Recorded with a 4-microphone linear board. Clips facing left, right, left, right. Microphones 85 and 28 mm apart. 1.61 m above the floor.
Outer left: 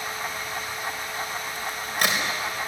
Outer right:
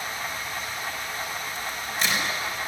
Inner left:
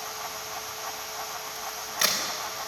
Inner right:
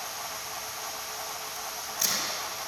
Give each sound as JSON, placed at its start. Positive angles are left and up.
{"t": 1.6, "sound": "a crack", "side_deg": 60, "distance_m": 4.5}